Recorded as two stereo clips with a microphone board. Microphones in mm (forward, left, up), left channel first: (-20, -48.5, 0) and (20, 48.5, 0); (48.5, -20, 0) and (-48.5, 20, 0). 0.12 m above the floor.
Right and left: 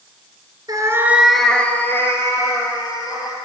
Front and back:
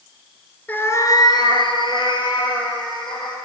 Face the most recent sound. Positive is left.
turn(degrees=-60)